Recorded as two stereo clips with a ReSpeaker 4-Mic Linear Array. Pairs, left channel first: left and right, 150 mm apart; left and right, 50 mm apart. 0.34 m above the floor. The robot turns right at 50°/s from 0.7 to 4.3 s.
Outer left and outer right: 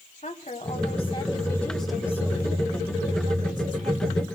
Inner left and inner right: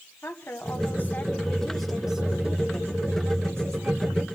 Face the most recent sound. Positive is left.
turn(degrees=-60)